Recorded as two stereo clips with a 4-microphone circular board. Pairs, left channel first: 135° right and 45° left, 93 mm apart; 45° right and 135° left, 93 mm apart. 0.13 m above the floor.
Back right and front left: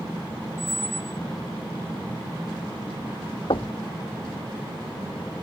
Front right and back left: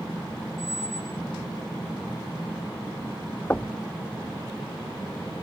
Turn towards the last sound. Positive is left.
turn(degrees=-115)